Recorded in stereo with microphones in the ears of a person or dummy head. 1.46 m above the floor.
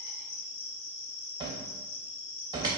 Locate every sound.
0.0 s an insect: 70° left (ahead or behind), 1.4 m
1.4 s a cupboard door: 20° right (ahead or behind), 0.5 m